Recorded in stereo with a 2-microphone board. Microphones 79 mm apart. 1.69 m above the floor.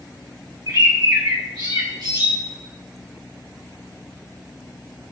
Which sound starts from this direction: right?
A bird, at 0.7 s.